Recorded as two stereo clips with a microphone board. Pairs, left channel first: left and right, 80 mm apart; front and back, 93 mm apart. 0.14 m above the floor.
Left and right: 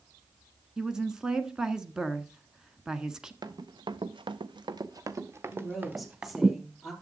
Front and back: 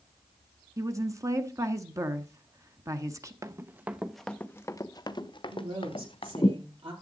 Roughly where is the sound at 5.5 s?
Behind.